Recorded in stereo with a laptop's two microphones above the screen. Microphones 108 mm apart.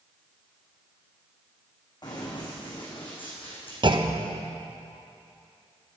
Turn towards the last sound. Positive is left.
turn(degrees=-50)  # may be behind; listen again after turning